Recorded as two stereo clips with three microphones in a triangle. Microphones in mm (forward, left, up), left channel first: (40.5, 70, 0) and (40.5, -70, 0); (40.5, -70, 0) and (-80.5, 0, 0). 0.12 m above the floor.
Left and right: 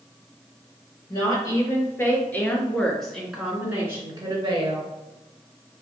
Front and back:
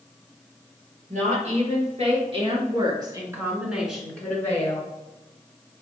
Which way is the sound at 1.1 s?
150° left.